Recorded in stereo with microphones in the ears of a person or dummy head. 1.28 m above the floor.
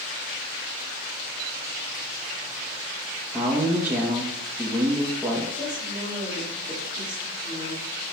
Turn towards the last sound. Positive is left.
turn(degrees=25)  # may be behind; listen again after turning